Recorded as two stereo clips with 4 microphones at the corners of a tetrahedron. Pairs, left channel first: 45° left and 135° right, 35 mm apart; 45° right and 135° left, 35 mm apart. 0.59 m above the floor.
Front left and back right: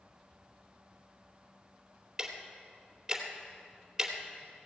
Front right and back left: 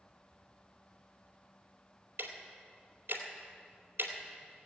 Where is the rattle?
I don't hear a rattle.